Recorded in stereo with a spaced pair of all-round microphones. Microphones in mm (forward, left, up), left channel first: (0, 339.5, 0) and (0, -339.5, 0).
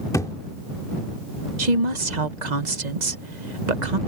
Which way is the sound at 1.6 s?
70° right (ahead or behind).